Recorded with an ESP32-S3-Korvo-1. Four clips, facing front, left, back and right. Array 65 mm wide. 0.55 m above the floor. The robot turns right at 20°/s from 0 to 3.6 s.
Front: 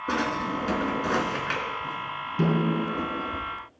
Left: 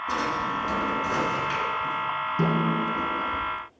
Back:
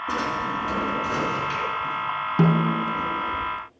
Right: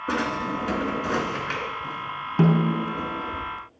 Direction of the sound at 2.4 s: 145° right.